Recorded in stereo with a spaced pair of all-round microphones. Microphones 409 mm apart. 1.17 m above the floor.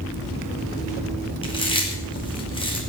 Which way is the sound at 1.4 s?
10° left (ahead or behind).